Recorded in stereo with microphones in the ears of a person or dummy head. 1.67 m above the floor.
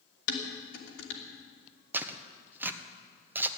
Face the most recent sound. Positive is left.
turn(degrees=-15)  # may be behind; listen again after turning